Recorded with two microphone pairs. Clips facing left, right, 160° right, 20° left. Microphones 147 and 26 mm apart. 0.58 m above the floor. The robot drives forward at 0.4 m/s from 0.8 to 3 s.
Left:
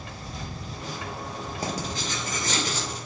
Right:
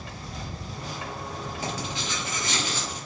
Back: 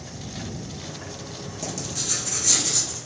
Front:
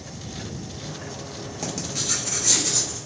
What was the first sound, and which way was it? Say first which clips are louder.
Writing: left 3 dB, front 2 dB; 60° left.